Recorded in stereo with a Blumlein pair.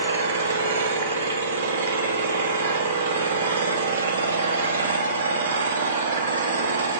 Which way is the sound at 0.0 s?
65° right.